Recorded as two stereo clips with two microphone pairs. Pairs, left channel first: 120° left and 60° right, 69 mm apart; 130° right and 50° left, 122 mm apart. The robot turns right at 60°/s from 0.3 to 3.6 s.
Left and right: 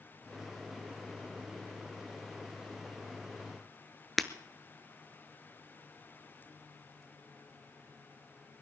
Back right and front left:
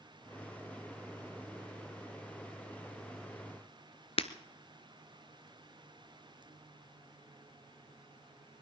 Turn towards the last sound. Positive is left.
turn(degrees=-150)